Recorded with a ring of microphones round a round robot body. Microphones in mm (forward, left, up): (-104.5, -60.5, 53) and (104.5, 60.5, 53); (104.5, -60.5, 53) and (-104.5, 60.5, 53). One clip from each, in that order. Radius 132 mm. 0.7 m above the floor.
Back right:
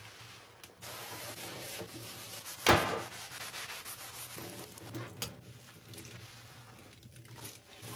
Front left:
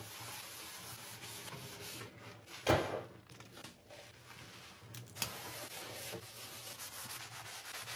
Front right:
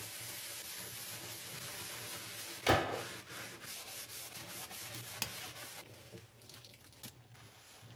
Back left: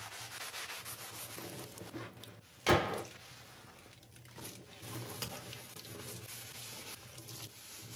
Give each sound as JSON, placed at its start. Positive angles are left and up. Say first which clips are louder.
{"t": 2.7, "sound": "a gunshot", "louder": "back right 6 dB, back left 1 dB", "azimuth_deg": -120, "distance_m": 0.6}
{"t": 4.9, "sound": "a crack", "louder": "even, even", "azimuth_deg": -20, "distance_m": 0.8}